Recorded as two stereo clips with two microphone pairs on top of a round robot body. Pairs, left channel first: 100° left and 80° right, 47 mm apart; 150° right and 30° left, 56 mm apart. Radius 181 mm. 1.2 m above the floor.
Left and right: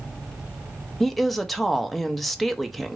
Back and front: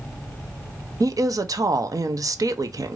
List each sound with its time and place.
1.0 s a woman speaking: 10° left, 0.5 m